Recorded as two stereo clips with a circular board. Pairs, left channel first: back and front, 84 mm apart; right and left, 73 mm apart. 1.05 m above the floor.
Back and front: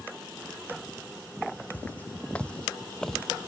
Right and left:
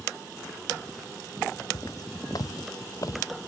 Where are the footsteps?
110° right; by 3.2 s 90° right.